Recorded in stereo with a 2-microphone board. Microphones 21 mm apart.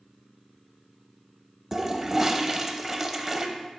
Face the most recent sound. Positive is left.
turn(degrees=-25)  # may be behind; listen again after turning